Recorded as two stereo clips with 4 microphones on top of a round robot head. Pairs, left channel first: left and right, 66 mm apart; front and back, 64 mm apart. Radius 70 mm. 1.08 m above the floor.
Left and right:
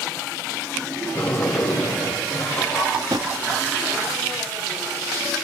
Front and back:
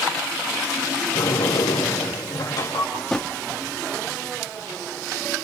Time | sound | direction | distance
1.1 | a sliding door | 30° left | 3.5 m
2.9 | a drawer | 85° right | 0.6 m